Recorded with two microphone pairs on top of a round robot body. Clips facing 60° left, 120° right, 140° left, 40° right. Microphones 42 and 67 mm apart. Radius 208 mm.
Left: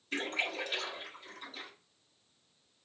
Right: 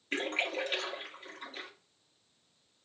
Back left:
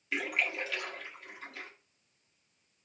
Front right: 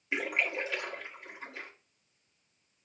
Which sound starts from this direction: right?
A splash, at 0.1 s.